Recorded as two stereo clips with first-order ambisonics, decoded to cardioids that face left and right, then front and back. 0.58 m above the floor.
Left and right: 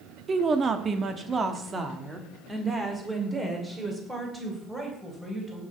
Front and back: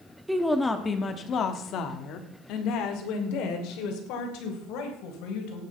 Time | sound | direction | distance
0.3 | a woman speaking | 105° right | 1.1 m